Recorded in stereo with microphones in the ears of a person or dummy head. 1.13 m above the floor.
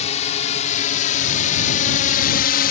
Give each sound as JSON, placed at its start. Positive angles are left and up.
{"t": 0.0, "sound": "a drone", "side_deg": 35}